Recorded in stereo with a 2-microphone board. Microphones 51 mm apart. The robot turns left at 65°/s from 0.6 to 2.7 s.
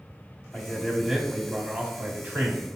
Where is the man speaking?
10° left (ahead or behind), 1.0 m; by 2.8 s 25° right (ahead or behind), 1.0 m.